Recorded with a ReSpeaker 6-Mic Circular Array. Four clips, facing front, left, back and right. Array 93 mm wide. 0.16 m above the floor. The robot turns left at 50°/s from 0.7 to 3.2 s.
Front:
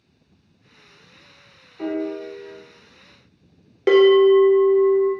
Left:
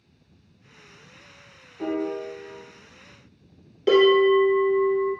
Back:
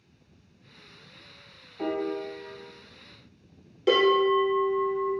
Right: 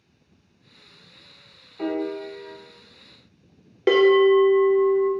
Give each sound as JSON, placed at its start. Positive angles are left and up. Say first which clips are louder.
{"t": 1.8, "sound": "a piano", "louder": "right 1 dB, front 3 dB", "azimuth_deg": -75, "distance_m": 1.1}
{"t": 3.9, "sound": "a bell", "louder": "right 1 dB, front 9 dB", "azimuth_deg": -40, "distance_m": 0.8}